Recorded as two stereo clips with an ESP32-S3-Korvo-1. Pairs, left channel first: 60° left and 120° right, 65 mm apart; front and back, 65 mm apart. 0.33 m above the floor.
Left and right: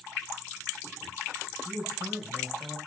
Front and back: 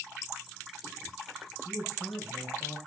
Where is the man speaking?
45° right, 6.5 m; by 2.8 s 35° right, 7.5 m.